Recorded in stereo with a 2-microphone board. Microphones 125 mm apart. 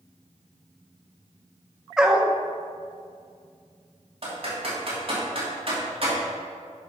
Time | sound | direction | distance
2.0 | a dog barking | 5° right (ahead or behind) | 0.8 m
4.2 | typing on a keyboard | 50° right (ahead or behind) | 3 m